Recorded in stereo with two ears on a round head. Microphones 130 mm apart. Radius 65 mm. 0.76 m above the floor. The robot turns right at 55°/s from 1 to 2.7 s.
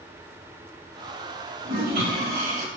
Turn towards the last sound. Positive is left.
turn(degrees=-55)